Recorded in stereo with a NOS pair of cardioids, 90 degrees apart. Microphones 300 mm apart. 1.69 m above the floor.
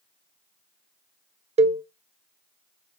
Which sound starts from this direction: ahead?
A cowbell, at 1.6 s.